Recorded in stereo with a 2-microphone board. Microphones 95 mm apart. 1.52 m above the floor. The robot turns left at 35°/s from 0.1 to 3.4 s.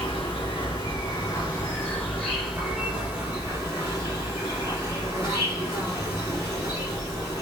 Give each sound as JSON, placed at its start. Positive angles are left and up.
{"t": 0.0, "sound": "an insect", "azimuth_deg": 85, "distance_m": 1.9}